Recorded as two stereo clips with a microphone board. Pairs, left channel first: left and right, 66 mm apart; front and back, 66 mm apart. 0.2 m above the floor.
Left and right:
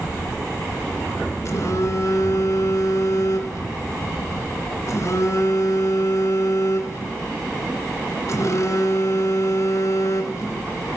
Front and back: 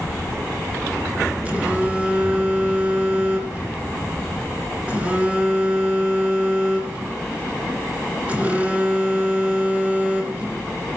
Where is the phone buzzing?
115° left, 3 m.